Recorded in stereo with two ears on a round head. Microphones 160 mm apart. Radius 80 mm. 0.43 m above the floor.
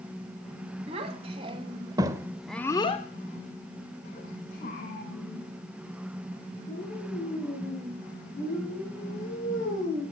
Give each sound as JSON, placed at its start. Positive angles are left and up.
{"t": 0.9, "sound": "a child speaking", "side_deg": -35, "distance_m": 2.5}